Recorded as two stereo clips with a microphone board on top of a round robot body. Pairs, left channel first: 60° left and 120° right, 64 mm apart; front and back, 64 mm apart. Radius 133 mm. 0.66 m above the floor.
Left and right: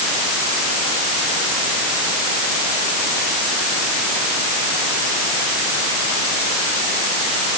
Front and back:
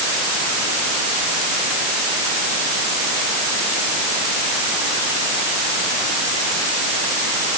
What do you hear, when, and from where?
Only background noise.